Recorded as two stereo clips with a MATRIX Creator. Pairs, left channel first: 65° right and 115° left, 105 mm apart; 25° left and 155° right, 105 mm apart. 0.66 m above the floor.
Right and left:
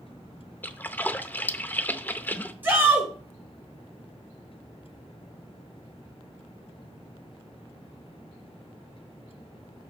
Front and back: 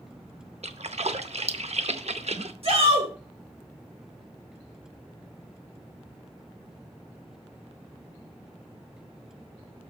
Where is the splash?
140° right, 0.6 m.